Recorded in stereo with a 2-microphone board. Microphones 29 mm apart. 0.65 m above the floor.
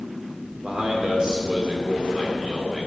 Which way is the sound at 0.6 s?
35° right (ahead or behind).